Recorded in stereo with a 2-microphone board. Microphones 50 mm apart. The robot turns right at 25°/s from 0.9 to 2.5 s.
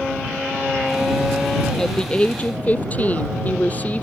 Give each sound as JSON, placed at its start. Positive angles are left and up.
{"t": 1.8, "sound": "a woman speaking", "side_deg": 10}